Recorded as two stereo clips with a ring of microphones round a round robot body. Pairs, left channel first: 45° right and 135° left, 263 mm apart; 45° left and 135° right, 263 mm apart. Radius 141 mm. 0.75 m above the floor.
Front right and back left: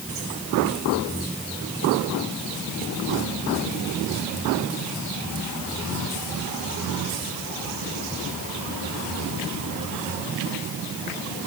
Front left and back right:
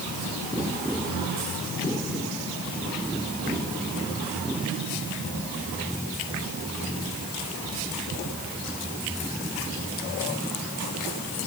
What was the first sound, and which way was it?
Only background noise.